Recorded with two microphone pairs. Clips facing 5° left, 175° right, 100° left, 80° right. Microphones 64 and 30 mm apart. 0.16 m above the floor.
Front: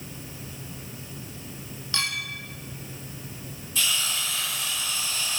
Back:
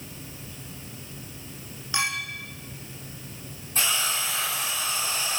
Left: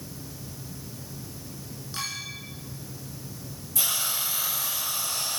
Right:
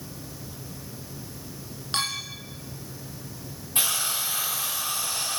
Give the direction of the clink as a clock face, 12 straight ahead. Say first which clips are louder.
Back 2 dB, right 5 dB; 3 o'clock.